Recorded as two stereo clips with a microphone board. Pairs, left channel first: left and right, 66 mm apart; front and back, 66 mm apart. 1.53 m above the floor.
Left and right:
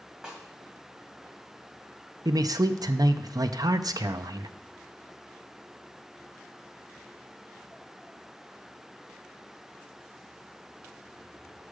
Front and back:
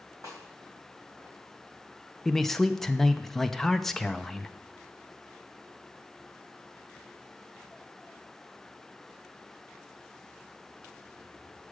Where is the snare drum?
170° right, 2 m.